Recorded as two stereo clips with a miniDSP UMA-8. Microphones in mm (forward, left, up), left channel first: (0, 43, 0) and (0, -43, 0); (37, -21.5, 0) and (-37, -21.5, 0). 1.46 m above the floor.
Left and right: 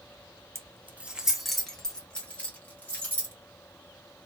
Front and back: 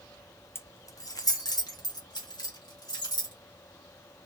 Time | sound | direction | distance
0.6 | keys jangling | 50° right | 0.6 m